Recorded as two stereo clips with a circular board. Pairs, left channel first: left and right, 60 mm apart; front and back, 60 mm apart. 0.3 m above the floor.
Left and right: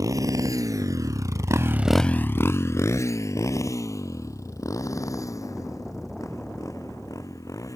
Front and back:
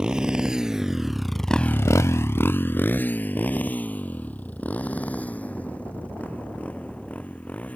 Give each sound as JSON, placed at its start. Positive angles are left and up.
{"t": 0.0, "sound": "a motorcycle", "azimuth_deg": -105}